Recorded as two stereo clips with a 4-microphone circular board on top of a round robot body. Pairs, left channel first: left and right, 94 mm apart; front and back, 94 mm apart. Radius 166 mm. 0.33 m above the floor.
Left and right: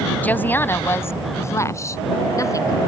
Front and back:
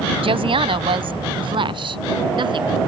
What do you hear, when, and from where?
0.2 s a woman speaking: 160° left; by 2.8 s 145° left